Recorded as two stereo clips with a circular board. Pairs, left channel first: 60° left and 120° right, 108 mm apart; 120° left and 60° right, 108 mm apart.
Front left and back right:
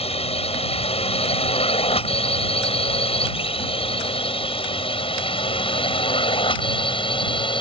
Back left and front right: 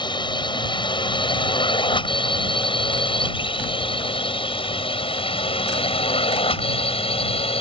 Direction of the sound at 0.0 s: 80° left.